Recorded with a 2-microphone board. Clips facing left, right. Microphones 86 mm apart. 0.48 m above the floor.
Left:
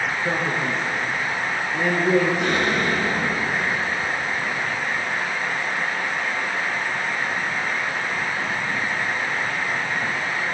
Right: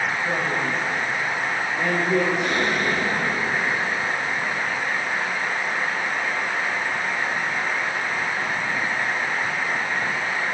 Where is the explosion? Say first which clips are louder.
Left 1 dB; 70° left (ahead or behind), 6 m.